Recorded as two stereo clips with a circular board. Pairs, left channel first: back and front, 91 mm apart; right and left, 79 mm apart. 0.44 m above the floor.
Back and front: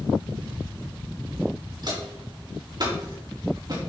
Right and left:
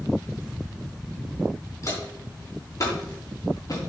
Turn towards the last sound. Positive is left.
turn(degrees=-45)